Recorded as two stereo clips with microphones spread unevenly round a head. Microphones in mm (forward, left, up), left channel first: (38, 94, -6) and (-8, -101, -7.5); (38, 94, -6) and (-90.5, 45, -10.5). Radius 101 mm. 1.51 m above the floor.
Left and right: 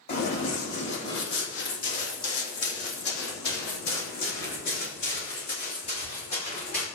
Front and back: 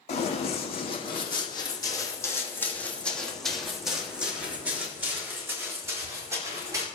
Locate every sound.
0.1 s running footsteps: 45° left, 3 m; by 6.9 s 135° left, 5 m